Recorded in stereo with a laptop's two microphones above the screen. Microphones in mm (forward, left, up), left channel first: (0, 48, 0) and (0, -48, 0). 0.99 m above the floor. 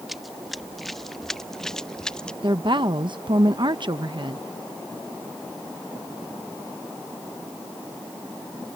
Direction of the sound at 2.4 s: 55° right (ahead or behind).